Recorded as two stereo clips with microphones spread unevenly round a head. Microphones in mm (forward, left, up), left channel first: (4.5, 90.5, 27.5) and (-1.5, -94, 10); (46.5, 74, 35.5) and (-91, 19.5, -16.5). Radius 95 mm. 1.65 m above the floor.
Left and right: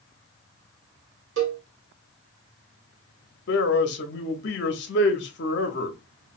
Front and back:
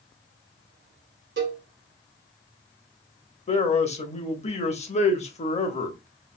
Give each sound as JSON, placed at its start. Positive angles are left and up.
{"t": 1.4, "sound": "a cowbell", "azimuth_deg": -110, "distance_m": 1.1}
{"t": 3.5, "sound": "a man speaking", "azimuth_deg": 60, "distance_m": 0.8}